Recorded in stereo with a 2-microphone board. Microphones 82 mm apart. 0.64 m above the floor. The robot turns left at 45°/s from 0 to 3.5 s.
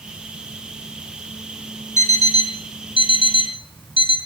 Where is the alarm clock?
145° left, 3 m; by 4.2 s 75° left, 3 m.